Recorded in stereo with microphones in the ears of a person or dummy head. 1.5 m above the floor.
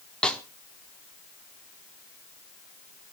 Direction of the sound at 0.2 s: 5° left (ahead or behind).